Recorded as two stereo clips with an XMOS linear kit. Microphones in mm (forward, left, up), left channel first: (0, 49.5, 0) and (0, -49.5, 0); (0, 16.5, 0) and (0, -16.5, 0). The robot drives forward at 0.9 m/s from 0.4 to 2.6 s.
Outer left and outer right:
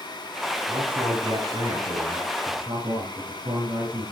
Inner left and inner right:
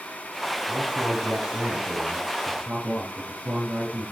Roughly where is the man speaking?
Right.